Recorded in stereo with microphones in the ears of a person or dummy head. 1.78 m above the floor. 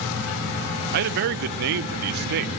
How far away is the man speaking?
About 1.1 m.